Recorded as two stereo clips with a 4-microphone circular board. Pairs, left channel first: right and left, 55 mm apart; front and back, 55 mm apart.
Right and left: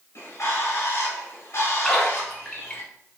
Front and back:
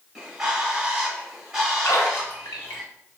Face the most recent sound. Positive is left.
turn(degrees=-10)